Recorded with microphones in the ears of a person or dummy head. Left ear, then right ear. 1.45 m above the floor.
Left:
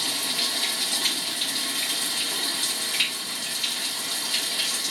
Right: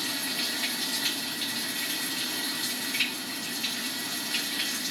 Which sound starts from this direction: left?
Running water, at 0.0 s.